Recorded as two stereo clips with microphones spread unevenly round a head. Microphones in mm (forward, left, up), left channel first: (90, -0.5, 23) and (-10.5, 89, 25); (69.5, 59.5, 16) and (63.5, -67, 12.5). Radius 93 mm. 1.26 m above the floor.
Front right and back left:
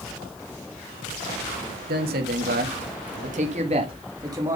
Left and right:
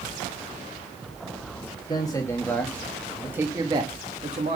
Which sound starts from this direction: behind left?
A man speaking, at 1.9 s.